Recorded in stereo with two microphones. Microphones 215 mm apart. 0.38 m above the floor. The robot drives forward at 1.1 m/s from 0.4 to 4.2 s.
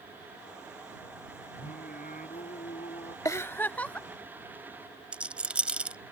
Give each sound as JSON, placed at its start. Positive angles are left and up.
{"t": 1.6, "sound": "singing", "side_deg": 45}
{"t": 3.2, "sound": "a giggle", "side_deg": 15}
{"t": 5.1, "sound": "a rattle", "side_deg": -5}